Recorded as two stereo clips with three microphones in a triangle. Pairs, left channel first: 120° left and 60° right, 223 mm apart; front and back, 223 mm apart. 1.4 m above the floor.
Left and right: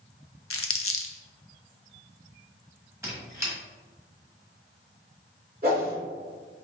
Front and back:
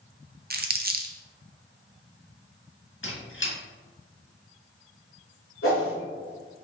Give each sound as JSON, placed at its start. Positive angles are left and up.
{"t": 0.5, "sound": "crumpling", "azimuth_deg": 130, "distance_m": 0.5}
{"t": 3.0, "sound": "a squeak", "azimuth_deg": 15, "distance_m": 1.4}
{"t": 5.6, "sound": "a whoosh", "azimuth_deg": -15, "distance_m": 1.8}